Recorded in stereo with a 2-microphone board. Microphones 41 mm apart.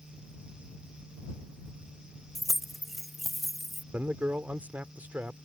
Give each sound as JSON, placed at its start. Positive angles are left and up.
{"t": 2.4, "sound": "keys jangling", "side_deg": 5}
{"t": 3.9, "sound": "a man speaking", "side_deg": -45}